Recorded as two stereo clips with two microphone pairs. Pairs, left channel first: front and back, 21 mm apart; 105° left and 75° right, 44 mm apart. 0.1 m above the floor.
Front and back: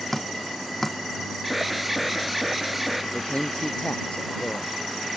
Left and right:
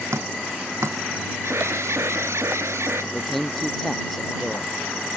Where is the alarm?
90° right.